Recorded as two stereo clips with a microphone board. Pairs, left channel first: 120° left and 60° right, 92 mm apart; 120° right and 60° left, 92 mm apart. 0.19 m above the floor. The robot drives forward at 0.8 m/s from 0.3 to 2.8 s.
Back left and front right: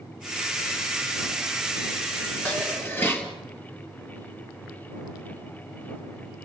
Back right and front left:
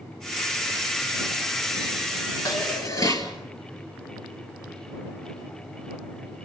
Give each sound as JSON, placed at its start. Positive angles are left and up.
{"t": 2.5, "sound": "dishes clattering", "azimuth_deg": -170, "distance_m": 2.0}